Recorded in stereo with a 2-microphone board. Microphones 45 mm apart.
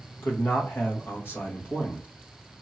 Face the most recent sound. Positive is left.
turn(degrees=60)  # may be behind; listen again after turning